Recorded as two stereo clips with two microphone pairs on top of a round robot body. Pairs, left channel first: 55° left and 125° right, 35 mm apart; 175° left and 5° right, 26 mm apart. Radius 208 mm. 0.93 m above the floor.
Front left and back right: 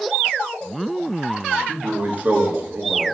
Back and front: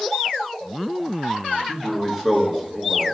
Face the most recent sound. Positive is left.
turn(degrees=-80)